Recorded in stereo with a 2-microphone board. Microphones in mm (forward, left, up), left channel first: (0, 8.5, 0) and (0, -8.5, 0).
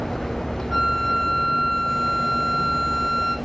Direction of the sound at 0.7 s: 10° right (ahead or behind).